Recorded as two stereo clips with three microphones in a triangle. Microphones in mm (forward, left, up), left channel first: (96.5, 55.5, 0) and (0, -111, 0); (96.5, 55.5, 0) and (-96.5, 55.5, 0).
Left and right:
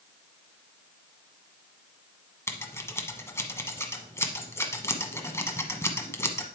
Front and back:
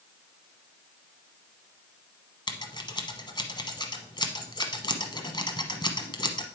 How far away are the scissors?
About 1.0 m.